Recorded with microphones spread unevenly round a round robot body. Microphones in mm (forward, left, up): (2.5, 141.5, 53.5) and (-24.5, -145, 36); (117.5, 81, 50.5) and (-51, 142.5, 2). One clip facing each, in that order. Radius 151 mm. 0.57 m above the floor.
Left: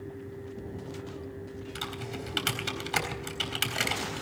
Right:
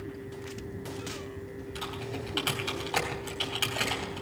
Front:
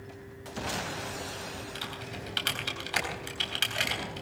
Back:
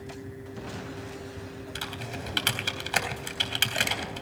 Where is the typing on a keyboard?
140° left, 3.5 m.